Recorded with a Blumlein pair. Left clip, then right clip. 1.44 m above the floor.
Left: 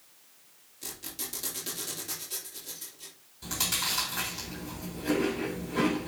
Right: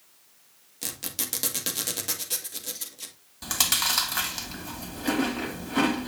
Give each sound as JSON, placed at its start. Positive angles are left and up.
{"t": 0.8, "sound": "a squeak", "azimuth_deg": -55, "distance_m": 1.6}
{"t": 3.4, "sound": "chewing", "azimuth_deg": -30, "distance_m": 2.5}